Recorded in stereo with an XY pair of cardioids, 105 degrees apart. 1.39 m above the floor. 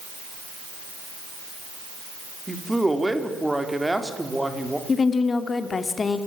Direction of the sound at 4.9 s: 35° left.